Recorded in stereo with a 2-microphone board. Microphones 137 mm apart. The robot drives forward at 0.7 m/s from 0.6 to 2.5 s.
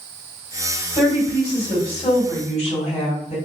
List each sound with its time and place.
0.9 s a woman speaking: 50° left (ahead or behind), 1.9 m; by 3.4 s 45° left (ahead or behind), 2.0 m